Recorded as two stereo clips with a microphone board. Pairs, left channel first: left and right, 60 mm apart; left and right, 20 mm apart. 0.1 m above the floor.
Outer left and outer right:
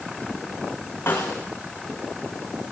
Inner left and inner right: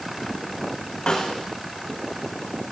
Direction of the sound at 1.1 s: 35° left (ahead or behind).